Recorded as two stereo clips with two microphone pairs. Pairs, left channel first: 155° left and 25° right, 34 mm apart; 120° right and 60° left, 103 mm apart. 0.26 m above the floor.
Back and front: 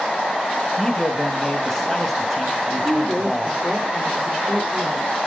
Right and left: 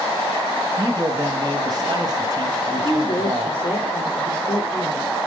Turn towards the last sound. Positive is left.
turn(degrees=-70)